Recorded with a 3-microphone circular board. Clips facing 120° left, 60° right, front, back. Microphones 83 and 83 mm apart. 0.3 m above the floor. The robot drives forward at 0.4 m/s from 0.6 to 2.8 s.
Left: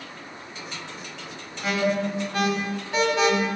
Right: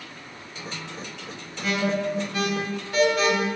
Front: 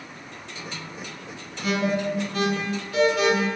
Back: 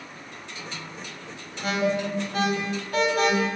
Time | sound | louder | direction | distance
1.6 | an alarm | left 1 dB, front 1 dB | 175° left | 1.6 m